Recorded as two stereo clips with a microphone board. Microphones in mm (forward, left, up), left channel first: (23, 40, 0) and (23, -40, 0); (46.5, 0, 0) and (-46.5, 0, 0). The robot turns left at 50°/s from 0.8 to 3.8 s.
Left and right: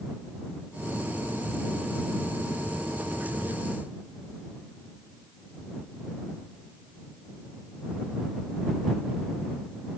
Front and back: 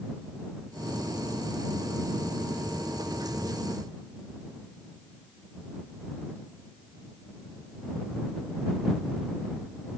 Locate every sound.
Only background noise.